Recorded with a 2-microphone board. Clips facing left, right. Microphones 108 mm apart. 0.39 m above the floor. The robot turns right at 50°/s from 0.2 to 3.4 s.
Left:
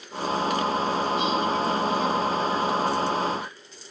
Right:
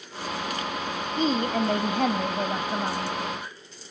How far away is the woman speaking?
About 2.5 m.